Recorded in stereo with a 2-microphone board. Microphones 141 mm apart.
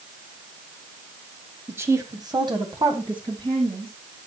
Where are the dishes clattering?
No dishes clattering in this recording.